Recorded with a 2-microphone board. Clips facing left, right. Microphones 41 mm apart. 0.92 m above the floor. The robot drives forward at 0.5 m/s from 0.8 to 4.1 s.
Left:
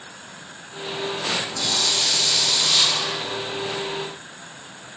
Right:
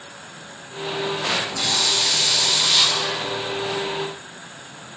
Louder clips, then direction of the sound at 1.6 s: Right 2 dB; 40° right (ahead or behind).